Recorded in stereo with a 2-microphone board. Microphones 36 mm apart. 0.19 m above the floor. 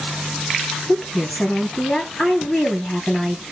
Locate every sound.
0.9 s a woman speaking: 25° left (ahead or behind), 3.5 m